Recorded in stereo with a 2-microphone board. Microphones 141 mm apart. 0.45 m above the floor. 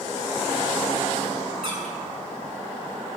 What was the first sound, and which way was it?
A squeak, 55° right (ahead or behind).